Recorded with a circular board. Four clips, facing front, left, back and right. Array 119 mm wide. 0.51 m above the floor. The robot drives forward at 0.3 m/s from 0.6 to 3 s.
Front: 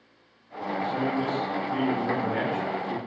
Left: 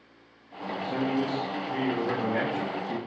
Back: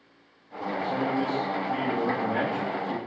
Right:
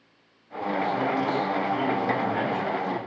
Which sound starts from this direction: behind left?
A man speaking, at 0.8 s.